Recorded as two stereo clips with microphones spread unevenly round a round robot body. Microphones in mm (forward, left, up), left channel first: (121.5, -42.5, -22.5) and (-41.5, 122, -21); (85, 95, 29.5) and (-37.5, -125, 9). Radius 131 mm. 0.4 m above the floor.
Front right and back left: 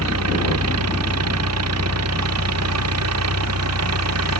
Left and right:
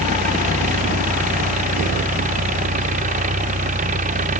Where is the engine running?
175° left.